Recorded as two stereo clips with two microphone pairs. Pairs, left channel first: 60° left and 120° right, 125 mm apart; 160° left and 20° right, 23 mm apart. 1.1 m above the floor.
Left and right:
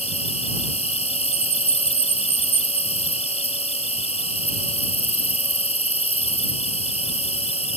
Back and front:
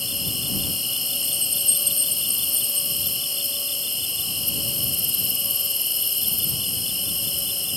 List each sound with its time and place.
0.0 s an insect: 65° left